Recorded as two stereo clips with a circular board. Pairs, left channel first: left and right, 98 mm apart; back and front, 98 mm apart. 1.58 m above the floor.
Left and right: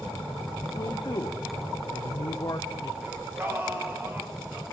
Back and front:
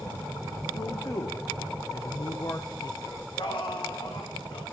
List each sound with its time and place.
0.8 s a man speaking: 130° left, 0.7 m
3.0 s singing: 155° right, 2 m